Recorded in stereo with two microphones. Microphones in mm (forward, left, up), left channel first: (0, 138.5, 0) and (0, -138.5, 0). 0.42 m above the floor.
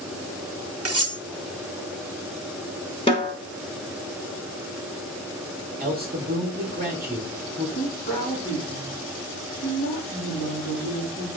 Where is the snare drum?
20° left (ahead or behind), 1.0 m.